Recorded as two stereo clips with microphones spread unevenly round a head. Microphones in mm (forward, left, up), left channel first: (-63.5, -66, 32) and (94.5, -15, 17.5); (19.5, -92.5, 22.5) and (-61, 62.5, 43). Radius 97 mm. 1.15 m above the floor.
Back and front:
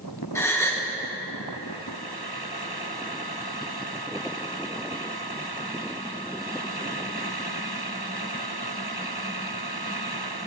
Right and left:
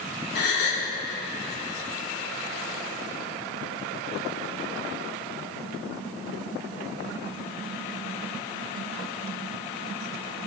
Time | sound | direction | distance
0.3 | a gasp | 90° right | 1.7 m